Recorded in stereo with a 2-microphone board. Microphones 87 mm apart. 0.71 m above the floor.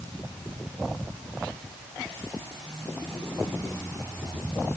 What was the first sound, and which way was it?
Only background noise.